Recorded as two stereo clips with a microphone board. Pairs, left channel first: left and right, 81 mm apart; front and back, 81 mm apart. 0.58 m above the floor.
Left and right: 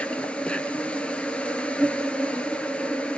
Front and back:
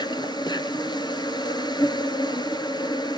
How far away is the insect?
About 1.1 m.